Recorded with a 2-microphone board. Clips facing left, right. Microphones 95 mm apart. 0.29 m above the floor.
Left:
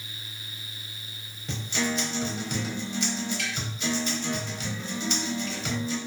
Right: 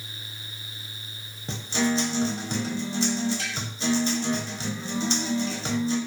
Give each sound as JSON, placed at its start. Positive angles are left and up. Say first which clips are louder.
{"t": 1.5, "sound": "a guitar", "louder": "right 4 dB", "side_deg": -30, "distance_m": 0.5}